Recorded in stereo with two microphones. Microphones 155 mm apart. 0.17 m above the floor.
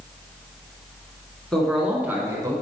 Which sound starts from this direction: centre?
A man speaking, at 1.5 s.